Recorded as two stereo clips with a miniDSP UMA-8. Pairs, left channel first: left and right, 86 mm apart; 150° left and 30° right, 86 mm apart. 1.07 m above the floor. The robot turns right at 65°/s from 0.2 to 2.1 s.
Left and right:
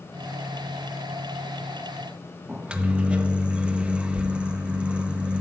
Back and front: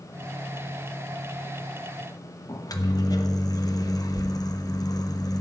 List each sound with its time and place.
2.5 s a microwave: 165° right, 0.8 m